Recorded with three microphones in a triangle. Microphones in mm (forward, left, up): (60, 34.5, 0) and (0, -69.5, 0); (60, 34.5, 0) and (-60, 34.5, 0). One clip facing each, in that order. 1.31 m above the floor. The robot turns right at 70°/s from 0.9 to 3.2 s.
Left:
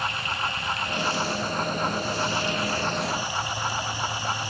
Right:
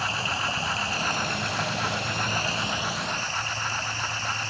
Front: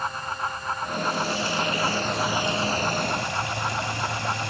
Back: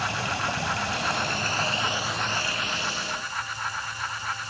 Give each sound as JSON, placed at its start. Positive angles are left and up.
{"t": 0.0, "sound": "running water", "azimuth_deg": 180}